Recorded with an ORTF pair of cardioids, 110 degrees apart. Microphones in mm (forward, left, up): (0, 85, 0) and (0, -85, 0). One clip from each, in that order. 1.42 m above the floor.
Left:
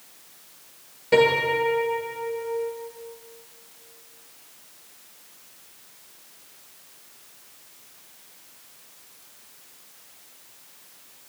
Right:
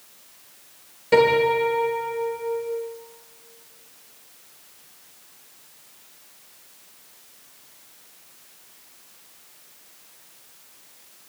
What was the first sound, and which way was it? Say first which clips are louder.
A piano: right 2 dB; 15° right.